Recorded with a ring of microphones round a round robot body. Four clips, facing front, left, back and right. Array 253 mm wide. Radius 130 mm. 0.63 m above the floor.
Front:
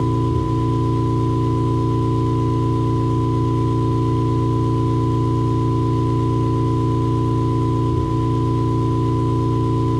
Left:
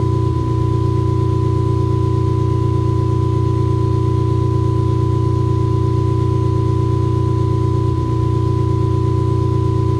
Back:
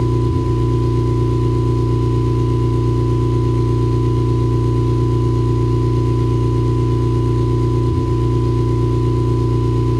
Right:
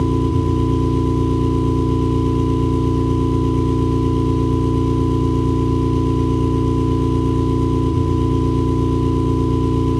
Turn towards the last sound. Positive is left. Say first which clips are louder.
# right 2 dB, back 1 dB
turn(degrees=-125)